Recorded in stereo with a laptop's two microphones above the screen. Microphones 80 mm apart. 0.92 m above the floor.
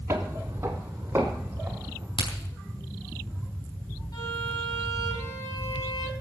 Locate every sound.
0.1 s footsteps: 30° right (ahead or behind), 1.6 m; by 2.1 s 20° right (ahead or behind), 3.5 m
2.2 s a crack: 80° left, 4 m
4.1 s a violin: 50° left (ahead or behind), 6.5 m